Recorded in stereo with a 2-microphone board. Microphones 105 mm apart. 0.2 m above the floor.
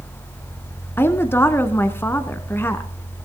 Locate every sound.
1.0 s a woman speaking: 20° left (ahead or behind), 1.6 m